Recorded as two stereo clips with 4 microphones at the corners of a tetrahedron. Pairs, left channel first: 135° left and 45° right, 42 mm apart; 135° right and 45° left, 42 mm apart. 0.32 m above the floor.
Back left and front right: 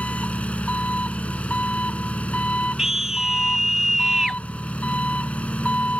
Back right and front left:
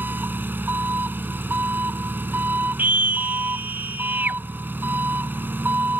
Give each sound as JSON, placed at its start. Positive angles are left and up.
{"t": 0.0, "sound": "an engine running", "azimuth_deg": 80}
{"t": 2.8, "sound": "a scream", "azimuth_deg": 30}